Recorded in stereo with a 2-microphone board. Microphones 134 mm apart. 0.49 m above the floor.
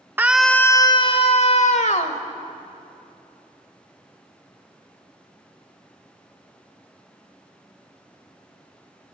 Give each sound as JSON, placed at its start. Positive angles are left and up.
{"t": 0.2, "sound": "a scream", "side_deg": -15, "distance_m": 0.7}